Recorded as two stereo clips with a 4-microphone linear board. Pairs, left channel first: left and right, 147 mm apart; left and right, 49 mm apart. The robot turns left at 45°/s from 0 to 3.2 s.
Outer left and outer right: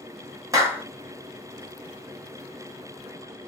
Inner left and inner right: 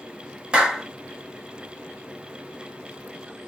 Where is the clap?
20° right (ahead or behind), 0.9 m; by 0.9 s 10° right (ahead or behind), 0.9 m.